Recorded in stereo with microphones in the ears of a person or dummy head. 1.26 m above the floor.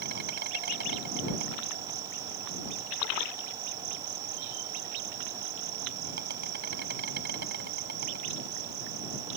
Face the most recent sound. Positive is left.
turn(degrees=-45)  # may be behind; listen again after turning